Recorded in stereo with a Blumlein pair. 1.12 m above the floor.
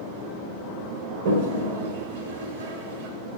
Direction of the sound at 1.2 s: 55° right.